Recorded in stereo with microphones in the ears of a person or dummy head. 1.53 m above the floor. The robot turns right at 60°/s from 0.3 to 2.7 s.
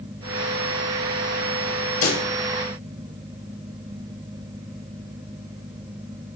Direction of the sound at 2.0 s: 85° left.